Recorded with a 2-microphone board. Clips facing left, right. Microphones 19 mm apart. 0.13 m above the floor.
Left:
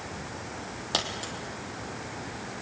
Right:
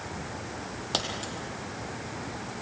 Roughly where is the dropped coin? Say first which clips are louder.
Left 1 dB; centre.